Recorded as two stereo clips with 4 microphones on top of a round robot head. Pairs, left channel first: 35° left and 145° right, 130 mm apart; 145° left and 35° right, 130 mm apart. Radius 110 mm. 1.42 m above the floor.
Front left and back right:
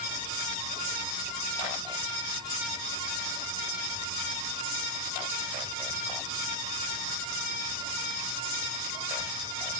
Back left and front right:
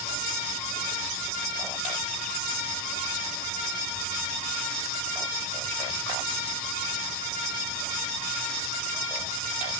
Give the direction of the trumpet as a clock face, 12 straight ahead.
No trumpet in this recording.